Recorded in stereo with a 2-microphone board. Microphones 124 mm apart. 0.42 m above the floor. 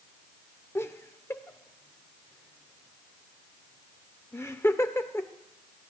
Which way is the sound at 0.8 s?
20° left (ahead or behind).